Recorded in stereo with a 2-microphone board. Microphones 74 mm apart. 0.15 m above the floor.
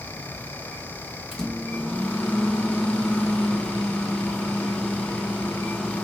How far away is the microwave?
About 0.9 m.